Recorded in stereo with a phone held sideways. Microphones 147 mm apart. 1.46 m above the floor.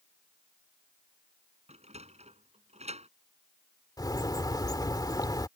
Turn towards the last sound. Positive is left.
turn(degrees=25)  # may be behind; listen again after turning